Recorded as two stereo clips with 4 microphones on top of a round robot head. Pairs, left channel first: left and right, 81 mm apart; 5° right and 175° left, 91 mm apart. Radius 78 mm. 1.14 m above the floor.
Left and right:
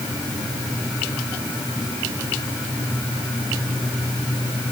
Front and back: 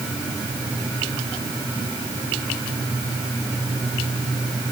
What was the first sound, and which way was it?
Only background noise.